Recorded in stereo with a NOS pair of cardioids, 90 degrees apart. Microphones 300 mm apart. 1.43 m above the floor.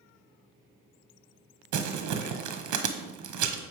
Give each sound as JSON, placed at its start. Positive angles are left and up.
{"t": 1.7, "sound": "crumpling", "azimuth_deg": -70, "distance_m": 1.0}